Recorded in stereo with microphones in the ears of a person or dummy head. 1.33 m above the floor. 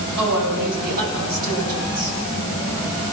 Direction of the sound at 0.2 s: 60° right (ahead or behind).